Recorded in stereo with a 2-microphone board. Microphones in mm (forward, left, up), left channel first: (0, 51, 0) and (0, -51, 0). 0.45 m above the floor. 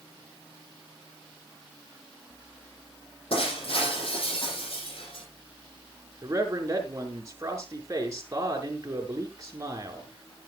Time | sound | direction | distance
3.3 | breaking glass | 65° left (ahead or behind) | 9 m
6.2 | a man speaking | 30° right (ahead or behind) | 5 m